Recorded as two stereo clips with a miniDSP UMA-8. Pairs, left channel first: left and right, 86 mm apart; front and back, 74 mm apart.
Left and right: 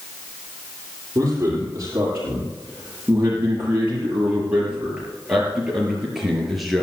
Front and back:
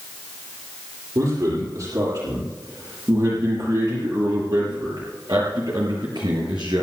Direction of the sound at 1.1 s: 150° right.